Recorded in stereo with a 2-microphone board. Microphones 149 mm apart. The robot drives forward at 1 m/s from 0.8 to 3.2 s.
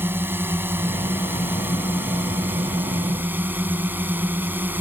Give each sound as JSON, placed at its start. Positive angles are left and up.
{"t": 0.0, "sound": "a drone", "side_deg": -15}